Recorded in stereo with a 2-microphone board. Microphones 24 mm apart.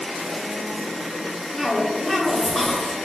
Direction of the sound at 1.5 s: 5° left (ahead or behind).